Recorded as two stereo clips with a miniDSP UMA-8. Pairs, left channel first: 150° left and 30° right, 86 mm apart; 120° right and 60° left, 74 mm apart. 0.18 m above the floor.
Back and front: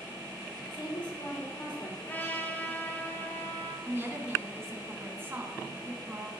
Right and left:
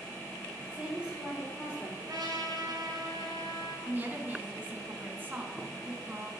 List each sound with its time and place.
0.7 s a woman speaking: 135° left, 4.5 m
2.0 s a trumpet: 85° left, 1.4 m
3.9 s a woman speaking: 15° left, 2.0 m